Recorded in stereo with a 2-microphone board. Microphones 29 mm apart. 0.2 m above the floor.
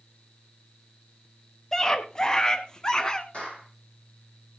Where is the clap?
50° left (ahead or behind), 8 m.